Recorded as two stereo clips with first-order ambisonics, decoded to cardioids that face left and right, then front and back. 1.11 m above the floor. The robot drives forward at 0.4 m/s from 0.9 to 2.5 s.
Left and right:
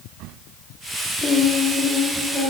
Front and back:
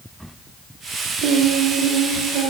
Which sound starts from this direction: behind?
Singing, at 1.2 s.